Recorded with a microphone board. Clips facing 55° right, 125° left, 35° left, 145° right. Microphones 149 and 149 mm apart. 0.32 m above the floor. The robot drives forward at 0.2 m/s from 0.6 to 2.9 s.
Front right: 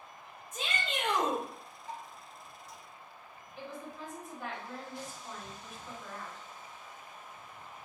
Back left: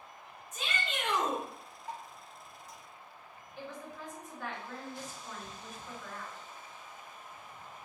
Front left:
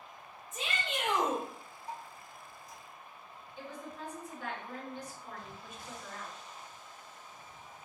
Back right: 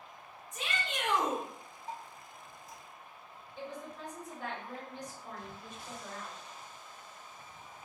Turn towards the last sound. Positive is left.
turn(degrees=-140)